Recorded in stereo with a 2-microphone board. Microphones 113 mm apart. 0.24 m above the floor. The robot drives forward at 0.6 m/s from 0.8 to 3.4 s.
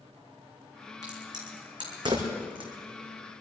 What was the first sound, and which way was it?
A crack, 35° right (ahead or behind).